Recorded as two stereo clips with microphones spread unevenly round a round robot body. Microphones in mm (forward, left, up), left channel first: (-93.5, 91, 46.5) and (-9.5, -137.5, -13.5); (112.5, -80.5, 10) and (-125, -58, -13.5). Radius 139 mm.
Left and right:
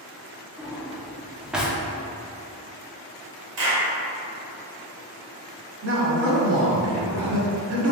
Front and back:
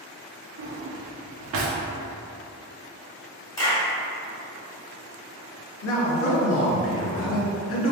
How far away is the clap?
About 1.9 m.